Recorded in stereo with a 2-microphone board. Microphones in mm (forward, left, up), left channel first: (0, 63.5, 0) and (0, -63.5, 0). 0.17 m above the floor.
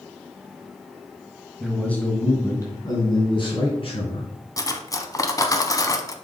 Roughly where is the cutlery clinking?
Left.